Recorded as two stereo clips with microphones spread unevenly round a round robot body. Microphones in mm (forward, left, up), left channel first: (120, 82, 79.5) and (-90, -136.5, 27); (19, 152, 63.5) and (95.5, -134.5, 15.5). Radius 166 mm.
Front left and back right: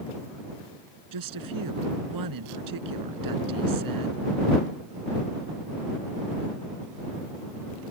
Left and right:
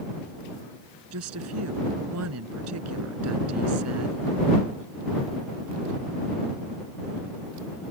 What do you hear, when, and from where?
1.1 s a woman speaking: 120° right